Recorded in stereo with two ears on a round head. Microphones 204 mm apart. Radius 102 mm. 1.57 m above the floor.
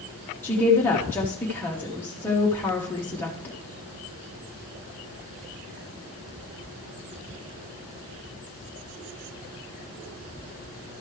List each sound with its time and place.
0.4 s a woman speaking: 10° left (ahead or behind), 0.9 m